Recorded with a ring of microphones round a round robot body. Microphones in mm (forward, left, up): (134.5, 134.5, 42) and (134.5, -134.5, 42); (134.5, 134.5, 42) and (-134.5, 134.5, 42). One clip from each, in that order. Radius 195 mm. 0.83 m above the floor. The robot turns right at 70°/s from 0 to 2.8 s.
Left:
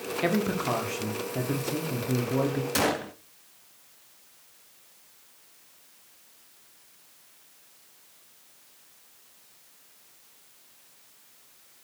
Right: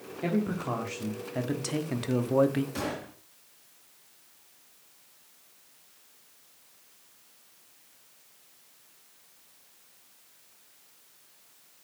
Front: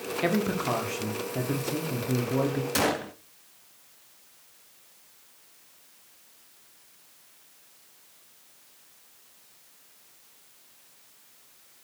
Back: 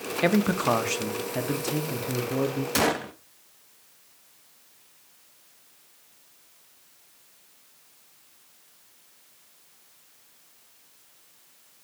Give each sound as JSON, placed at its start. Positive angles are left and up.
{"t": 0.2, "sound": "a man speaking", "azimuth_deg": 135, "distance_m": 1.4}
{"t": 2.8, "sound": "a gunshot", "azimuth_deg": 115, "distance_m": 1.2}